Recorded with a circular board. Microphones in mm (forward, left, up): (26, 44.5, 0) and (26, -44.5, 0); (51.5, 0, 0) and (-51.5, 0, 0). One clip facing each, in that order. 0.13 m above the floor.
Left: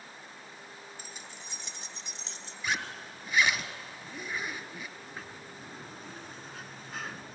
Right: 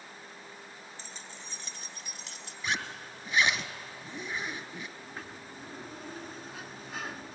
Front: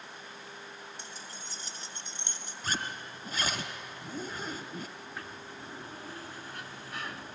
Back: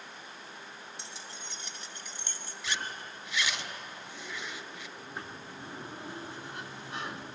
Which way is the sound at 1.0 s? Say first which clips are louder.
Even, even; 15° left.